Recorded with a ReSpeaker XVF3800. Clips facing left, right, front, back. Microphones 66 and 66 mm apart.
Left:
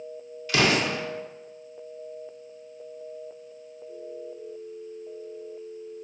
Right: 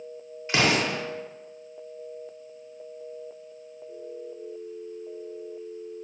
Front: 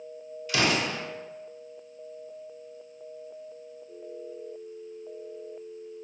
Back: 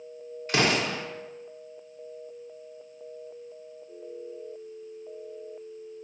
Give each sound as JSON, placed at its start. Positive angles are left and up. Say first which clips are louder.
{"t": 0.5, "sound": "an explosion", "louder": "left 1 dB, back 1 dB", "azimuth_deg": -145, "distance_m": 0.7}